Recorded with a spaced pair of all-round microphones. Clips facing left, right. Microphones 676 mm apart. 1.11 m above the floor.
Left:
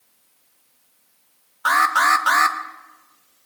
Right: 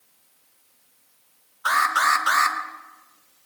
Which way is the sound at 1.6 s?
75° left (ahead or behind).